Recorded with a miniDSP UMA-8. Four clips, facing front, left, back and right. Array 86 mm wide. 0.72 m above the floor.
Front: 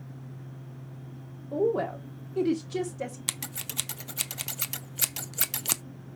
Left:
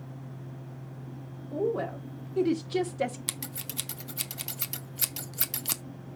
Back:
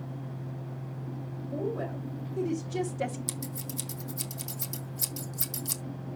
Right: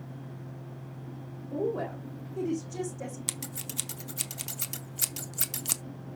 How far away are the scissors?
About 0.6 m.